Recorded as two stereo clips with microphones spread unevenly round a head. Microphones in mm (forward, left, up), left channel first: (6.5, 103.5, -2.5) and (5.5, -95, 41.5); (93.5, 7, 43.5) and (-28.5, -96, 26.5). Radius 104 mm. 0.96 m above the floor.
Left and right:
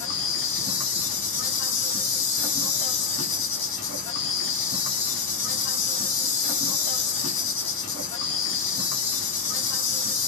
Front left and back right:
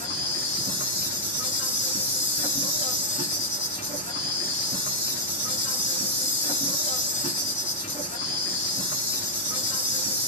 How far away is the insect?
About 1.1 m.